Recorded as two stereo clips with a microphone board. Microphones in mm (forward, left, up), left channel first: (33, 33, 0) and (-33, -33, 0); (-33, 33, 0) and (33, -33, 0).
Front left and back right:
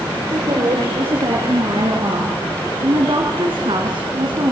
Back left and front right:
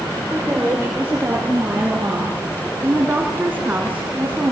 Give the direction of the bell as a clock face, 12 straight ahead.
No bell in this recording.